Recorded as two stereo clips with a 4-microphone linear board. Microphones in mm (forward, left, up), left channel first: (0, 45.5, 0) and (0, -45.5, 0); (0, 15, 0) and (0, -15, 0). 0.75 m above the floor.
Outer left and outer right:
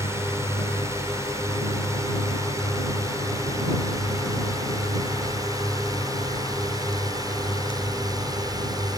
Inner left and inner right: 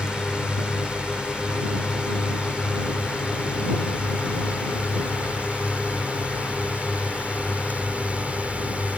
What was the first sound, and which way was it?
A drone, 30° right (ahead or behind).